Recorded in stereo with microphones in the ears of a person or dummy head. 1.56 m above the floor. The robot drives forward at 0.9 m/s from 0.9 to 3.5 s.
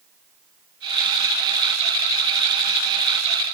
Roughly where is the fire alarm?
I don't hear a fire alarm.